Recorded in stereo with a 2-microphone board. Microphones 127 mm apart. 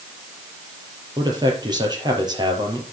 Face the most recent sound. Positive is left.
turn(degrees=-35)  # may be behind; listen again after turning